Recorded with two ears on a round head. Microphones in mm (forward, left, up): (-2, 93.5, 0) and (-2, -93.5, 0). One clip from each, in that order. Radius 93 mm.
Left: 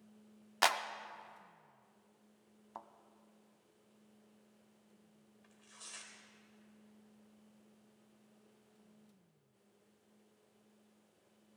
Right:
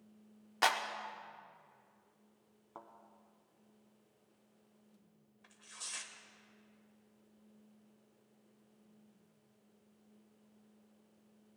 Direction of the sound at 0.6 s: 20° left (ahead or behind).